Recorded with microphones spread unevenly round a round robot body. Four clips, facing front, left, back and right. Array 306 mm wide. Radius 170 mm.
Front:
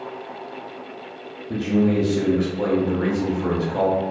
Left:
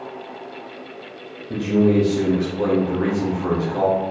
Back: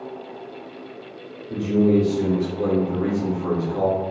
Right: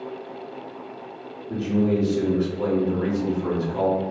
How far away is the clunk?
No clunk in this recording.